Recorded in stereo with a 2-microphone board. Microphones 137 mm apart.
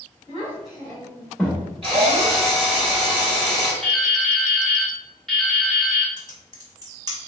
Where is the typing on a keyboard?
30° right (ahead or behind), 1.1 m.